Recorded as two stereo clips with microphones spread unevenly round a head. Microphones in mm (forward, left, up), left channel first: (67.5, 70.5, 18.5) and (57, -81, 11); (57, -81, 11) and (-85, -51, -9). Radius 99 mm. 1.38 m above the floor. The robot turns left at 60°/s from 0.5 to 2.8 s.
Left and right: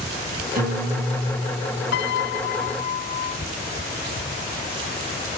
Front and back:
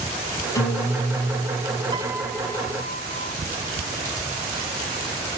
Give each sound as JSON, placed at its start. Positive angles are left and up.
{"t": 0.6, "sound": "a guitar", "azimuth_deg": -75, "distance_m": 8.0}
{"t": 1.9, "sound": "a piano", "azimuth_deg": 100, "distance_m": 0.5}